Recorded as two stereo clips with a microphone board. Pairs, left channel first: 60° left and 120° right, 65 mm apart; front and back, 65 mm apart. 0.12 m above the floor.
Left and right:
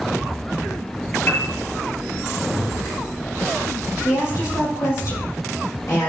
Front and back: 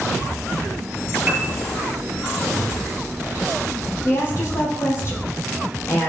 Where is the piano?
110° left, 1.5 m.